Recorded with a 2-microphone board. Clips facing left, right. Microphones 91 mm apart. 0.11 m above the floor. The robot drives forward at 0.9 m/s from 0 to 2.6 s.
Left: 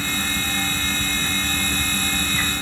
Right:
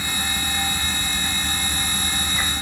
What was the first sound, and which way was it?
Only background noise.